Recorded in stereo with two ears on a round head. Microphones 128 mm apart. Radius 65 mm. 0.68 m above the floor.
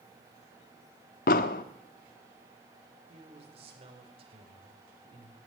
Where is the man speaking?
45° right (ahead or behind), 3 m.